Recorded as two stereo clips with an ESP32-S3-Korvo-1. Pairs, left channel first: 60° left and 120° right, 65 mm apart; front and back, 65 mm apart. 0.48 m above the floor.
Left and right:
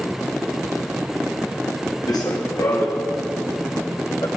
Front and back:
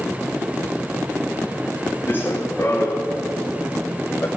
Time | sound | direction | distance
2.1 | running footsteps | 55° left | 1.8 m